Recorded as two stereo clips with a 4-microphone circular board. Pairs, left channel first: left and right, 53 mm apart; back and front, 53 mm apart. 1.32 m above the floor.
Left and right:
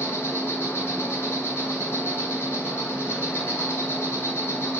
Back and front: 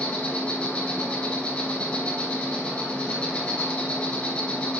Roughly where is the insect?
Behind left.